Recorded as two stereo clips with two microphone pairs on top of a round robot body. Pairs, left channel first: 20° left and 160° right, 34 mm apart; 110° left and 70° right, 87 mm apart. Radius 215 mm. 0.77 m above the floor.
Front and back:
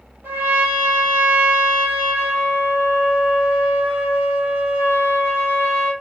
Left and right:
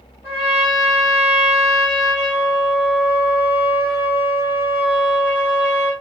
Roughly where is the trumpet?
Behind right.